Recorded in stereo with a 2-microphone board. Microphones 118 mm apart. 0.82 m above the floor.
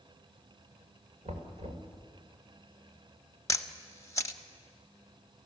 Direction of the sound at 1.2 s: 70° right (ahead or behind).